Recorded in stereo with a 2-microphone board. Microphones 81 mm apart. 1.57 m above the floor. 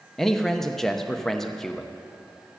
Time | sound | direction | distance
0.2 | a man speaking | 5° left (ahead or behind) | 0.7 m